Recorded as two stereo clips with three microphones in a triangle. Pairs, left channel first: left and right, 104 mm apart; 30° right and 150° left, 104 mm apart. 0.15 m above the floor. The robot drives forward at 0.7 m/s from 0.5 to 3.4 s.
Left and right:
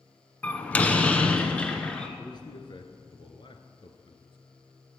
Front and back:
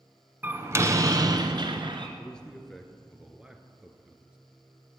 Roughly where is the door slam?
Behind left.